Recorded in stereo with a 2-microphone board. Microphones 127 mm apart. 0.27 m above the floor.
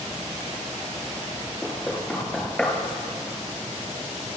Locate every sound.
1.6 s knocking: 5° left (ahead or behind), 3 m